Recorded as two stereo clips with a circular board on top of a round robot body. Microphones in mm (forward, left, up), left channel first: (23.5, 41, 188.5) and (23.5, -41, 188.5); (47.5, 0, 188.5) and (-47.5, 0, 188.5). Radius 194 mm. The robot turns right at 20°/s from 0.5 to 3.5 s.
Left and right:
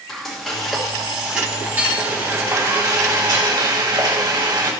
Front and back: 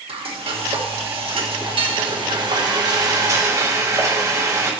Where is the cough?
I don't hear a cough.